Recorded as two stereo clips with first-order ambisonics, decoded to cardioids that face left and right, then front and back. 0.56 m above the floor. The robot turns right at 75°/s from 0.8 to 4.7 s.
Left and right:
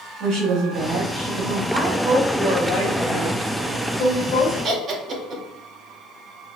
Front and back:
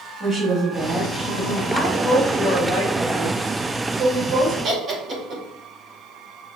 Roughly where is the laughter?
Behind right.